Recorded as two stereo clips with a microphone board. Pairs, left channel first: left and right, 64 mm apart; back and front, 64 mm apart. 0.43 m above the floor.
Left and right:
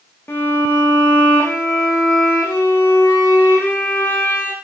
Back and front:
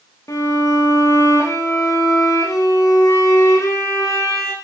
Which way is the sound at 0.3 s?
145° left.